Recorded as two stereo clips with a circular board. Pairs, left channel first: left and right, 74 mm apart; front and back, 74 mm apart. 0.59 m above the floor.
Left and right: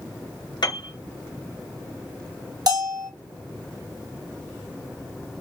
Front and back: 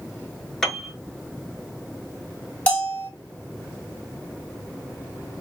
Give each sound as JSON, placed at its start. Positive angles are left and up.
{"t": 0.6, "sound": "a piano", "azimuth_deg": 85, "distance_m": 1.2}
{"t": 2.7, "sound": "a bell", "azimuth_deg": -70, "distance_m": 1.4}